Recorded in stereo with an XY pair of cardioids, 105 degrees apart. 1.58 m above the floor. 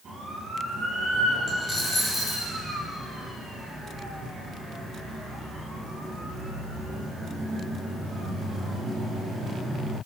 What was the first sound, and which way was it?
A dropped coin, 30° left.